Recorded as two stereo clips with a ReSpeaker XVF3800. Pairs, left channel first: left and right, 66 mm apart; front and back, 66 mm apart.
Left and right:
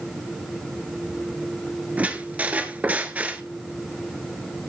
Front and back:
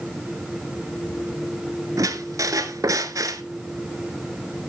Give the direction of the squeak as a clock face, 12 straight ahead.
5 o'clock.